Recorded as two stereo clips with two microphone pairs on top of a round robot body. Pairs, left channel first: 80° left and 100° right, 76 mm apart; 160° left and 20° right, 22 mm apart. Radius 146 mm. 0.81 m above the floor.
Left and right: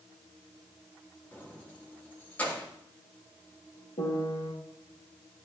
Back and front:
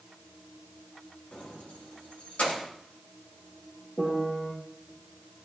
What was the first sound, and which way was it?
Keys jangling, 150° left.